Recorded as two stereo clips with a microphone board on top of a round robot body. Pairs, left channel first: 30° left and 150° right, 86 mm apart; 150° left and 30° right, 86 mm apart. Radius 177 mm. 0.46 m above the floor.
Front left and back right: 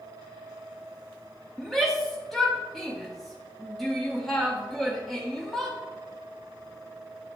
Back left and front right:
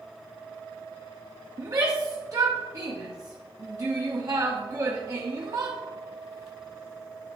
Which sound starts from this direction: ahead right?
A shout, at 1.6 s.